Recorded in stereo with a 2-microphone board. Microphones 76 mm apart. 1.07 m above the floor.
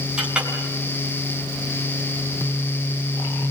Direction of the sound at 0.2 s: 10° right (ahead or behind).